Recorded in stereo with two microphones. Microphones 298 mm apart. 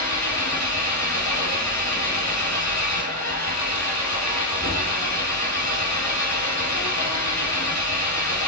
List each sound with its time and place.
0.0 s an engine running: 65° left (ahead or behind), 3 m